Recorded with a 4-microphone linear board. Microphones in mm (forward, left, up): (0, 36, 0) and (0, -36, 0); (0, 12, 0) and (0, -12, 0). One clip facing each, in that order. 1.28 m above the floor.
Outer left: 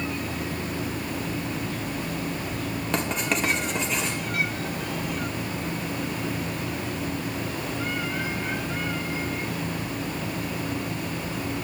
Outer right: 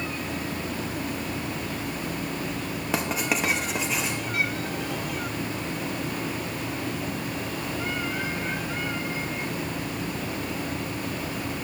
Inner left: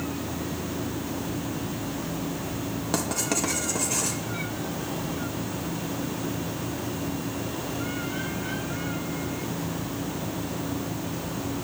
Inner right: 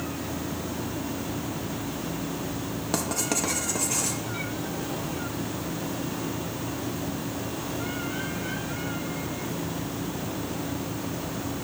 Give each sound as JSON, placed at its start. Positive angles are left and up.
{"t": 2.9, "sound": "writing", "side_deg": -5, "distance_m": 2.5}